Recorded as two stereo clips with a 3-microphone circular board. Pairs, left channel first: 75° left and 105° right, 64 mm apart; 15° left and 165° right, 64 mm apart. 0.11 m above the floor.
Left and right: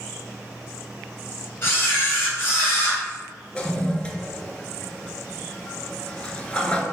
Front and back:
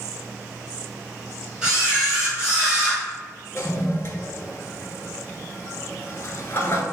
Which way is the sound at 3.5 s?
10° left.